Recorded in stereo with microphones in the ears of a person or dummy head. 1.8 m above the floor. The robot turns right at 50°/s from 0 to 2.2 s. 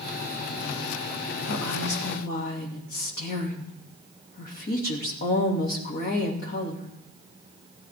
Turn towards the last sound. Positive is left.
turn(degrees=130)